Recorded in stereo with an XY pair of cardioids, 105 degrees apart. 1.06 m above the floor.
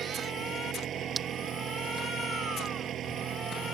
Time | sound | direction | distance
0.0 | an engine running | 65° right | ?
1.2 | breaking glass | 40° right | ?